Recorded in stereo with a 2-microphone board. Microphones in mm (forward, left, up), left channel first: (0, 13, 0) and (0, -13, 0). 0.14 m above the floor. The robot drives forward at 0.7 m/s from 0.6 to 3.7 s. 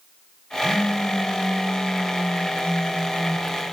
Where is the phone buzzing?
35° left (ahead or behind), 2.5 m; by 3.5 s 45° left (ahead or behind), 1.8 m.